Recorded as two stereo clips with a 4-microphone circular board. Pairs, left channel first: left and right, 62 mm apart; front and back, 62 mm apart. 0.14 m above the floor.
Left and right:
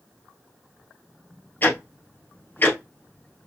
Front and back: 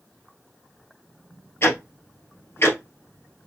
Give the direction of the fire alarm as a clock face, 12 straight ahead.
I don't hear a fire alarm.